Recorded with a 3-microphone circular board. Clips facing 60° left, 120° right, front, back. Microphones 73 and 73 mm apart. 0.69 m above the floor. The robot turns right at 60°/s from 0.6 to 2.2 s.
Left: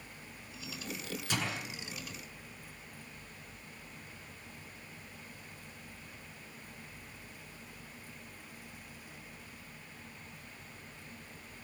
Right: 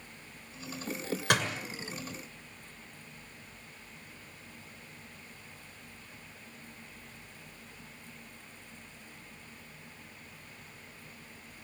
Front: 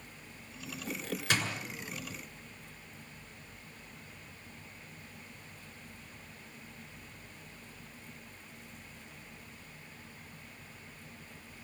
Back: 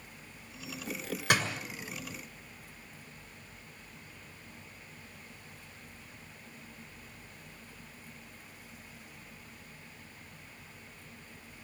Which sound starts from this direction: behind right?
A door slam, at 1.3 s.